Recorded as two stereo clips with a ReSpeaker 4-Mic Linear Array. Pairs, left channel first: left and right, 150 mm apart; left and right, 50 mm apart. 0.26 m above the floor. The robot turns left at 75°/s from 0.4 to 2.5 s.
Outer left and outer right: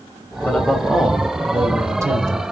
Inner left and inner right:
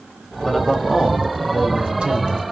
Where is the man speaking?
10° left (ahead or behind), 0.9 m; by 2.4 s 20° right (ahead or behind), 0.9 m.